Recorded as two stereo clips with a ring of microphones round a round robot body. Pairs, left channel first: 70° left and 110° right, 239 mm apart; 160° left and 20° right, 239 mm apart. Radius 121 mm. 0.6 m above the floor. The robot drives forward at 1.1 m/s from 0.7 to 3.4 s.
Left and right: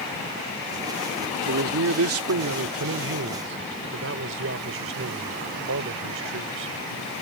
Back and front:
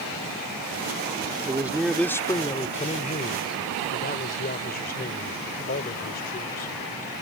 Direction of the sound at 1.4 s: 95° right.